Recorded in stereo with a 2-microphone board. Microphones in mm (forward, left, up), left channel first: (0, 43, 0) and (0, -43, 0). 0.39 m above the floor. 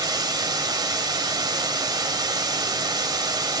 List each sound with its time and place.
0.0 s running water: 50° right (ahead or behind), 1.2 m